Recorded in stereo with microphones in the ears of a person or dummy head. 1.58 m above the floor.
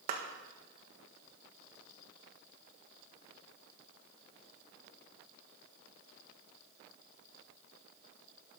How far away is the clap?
About 1.5 m.